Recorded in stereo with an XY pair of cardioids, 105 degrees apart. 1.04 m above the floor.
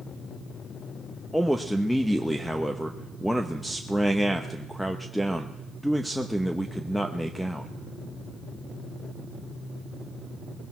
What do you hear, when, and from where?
1.3 s a man speaking: straight ahead, 0.9 m